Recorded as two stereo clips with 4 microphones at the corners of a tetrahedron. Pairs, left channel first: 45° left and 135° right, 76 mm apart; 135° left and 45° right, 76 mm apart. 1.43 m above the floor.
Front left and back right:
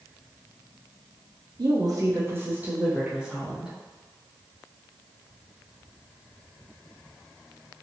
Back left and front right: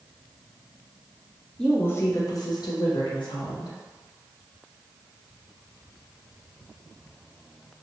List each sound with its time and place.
1.6 s a woman speaking: 145° right, 0.5 m; by 3.7 s 140° left, 1.4 m